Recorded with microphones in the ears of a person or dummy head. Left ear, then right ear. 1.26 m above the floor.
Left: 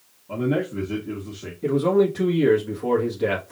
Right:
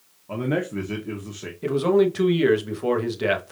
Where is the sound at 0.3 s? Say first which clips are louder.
Left 1 dB; 35° right (ahead or behind), 0.9 m.